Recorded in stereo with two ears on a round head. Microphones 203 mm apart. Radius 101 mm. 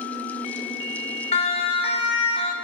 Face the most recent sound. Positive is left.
turn(degrees=25)  # may be behind; listen again after turning